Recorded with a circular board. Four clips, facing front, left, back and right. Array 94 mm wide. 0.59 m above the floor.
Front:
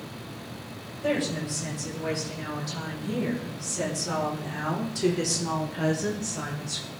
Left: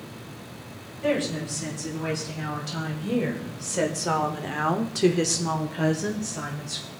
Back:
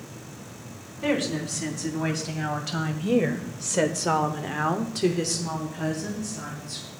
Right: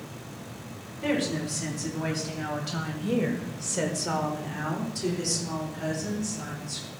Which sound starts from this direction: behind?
A woman speaking, at 1.0 s.